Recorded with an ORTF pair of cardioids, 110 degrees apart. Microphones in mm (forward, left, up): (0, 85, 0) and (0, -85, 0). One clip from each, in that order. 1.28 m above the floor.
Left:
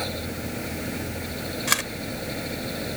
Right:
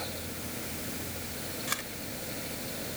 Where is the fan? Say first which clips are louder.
Left 8 dB; 55° left.